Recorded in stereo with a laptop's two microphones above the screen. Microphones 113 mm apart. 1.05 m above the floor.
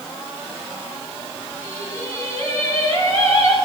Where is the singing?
25° left (ahead or behind), 8 m.